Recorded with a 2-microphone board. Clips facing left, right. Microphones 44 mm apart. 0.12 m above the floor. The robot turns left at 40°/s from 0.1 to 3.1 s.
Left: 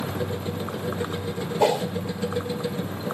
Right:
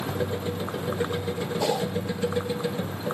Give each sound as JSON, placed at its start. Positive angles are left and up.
{"t": 1.6, "sound": "a whoosh", "side_deg": 25, "distance_m": 2.5}